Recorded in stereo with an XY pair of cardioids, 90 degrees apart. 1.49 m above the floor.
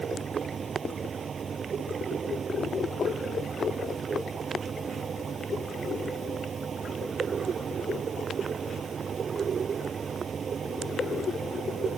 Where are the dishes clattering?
I don't hear dishes clattering.